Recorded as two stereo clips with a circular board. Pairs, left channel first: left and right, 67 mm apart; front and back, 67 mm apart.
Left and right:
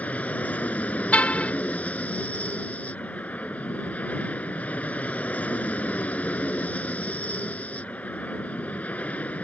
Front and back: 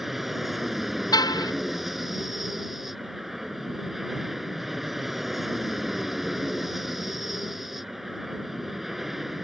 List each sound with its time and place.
0.0 s an aircraft: 100° left
1.1 s a car horn: 20° left